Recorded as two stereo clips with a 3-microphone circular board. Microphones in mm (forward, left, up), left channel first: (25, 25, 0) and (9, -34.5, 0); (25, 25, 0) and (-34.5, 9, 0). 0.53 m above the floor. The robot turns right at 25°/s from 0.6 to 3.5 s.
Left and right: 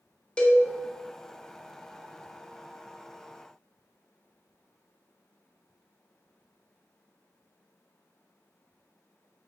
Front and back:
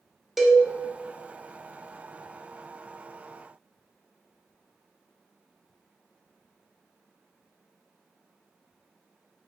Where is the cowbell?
115° left, 0.5 m.